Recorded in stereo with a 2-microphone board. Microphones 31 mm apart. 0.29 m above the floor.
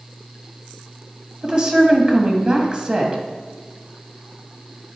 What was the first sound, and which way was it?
A woman speaking, 35° right (ahead or behind).